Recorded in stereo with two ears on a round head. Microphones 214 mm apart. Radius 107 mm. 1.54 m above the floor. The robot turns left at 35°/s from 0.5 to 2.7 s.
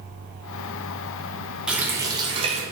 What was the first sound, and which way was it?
A running tap, 5° right.